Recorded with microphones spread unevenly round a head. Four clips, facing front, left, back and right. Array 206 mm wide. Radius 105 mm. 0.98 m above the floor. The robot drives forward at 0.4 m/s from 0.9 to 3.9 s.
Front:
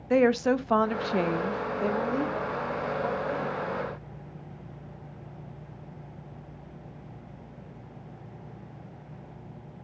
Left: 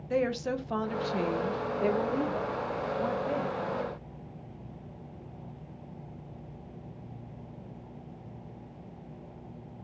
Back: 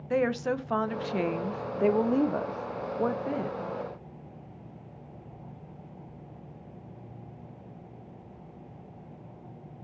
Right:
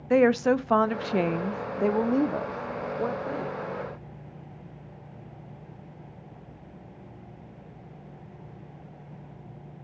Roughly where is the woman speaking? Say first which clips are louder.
Right 9 dB, front 5 dB; ahead right.